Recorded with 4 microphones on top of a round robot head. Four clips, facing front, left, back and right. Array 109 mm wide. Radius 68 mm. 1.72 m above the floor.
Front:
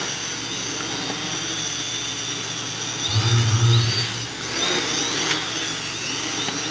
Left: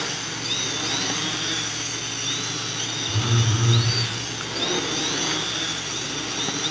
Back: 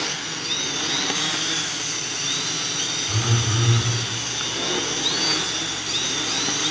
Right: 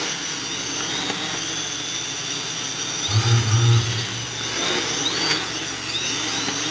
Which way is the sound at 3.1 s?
70° right.